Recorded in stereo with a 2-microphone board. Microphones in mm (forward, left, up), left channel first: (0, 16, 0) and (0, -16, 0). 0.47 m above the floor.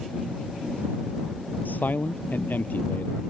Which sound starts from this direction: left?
A man speaking, at 1.6 s.